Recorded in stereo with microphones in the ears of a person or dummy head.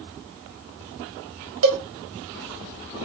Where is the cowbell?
75° right (ahead or behind), 0.8 m.